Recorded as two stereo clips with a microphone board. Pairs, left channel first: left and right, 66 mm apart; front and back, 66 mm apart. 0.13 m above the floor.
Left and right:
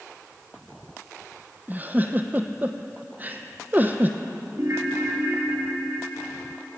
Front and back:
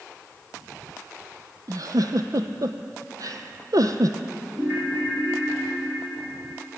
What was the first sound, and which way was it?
A giggle, 150° right.